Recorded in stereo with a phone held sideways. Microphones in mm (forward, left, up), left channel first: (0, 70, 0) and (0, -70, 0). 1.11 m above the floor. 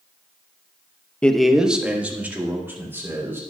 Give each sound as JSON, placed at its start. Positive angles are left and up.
{"t": 1.2, "sound": "a man speaking", "side_deg": 10, "distance_m": 0.6}